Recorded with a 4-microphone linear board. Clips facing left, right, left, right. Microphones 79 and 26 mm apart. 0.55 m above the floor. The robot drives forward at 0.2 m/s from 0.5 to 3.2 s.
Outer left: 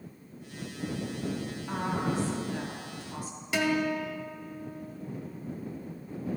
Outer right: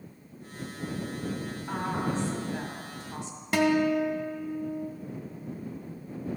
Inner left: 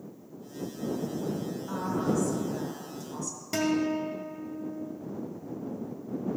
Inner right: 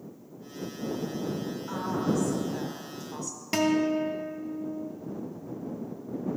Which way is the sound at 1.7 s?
20° right (ahead or behind).